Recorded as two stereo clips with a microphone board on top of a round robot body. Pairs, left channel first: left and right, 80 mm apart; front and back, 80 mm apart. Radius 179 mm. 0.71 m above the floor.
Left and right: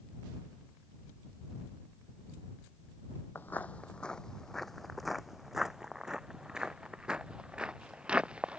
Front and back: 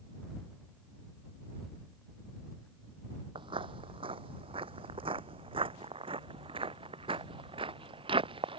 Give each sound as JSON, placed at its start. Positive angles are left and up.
{"t": 3.4, "sound": "footsteps", "azimuth_deg": 155}